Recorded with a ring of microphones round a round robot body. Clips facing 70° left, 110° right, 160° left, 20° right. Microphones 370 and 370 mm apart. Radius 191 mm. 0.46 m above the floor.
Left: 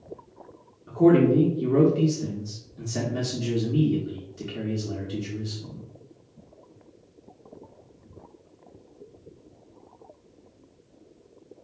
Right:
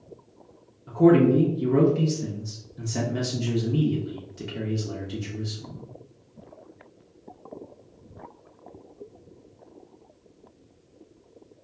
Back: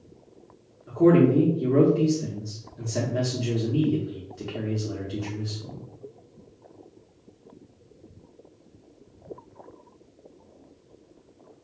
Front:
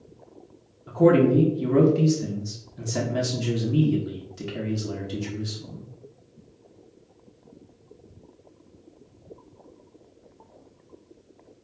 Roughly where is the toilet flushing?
No toilet flushing in this recording.